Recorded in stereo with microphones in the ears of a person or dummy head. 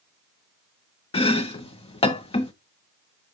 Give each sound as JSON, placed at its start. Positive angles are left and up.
{"t": 1.1, "sound": "chopping", "side_deg": 30, "distance_m": 0.7}